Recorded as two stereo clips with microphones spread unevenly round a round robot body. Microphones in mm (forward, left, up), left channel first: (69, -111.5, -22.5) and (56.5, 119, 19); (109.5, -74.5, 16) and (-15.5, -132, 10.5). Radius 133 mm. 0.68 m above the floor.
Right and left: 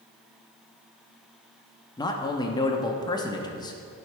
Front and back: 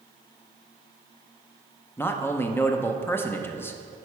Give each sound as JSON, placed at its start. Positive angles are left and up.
{"t": 2.0, "sound": "a man speaking", "azimuth_deg": -45, "distance_m": 0.7}